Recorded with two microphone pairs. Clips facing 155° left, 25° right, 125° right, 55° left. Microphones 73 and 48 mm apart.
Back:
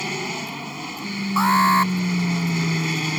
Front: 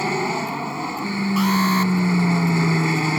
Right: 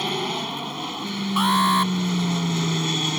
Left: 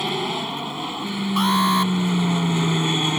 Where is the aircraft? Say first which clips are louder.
Front 6 dB, left 1 dB; 30° right; by 3.2 s straight ahead.